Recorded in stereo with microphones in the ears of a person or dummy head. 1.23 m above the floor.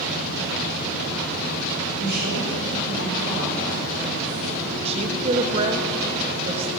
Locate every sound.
2.0 s a woman speaking: 60° right (ahead or behind), 6 m
4.8 s a woman speaking: 30° right (ahead or behind), 1.4 m